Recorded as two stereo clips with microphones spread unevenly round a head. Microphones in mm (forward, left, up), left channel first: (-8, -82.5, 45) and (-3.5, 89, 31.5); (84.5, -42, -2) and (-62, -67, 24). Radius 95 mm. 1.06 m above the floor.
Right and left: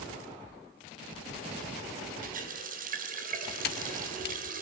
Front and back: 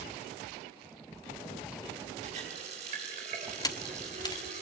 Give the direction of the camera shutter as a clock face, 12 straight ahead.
2 o'clock.